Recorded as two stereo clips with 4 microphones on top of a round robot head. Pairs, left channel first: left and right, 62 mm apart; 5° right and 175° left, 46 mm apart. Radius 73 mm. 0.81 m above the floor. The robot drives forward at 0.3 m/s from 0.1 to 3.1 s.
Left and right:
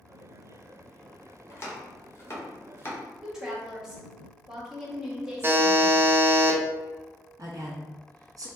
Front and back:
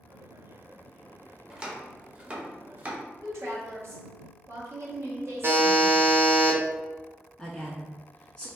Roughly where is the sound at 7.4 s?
Right.